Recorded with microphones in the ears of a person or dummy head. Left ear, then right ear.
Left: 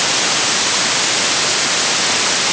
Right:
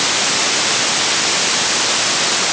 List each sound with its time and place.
Only background noise.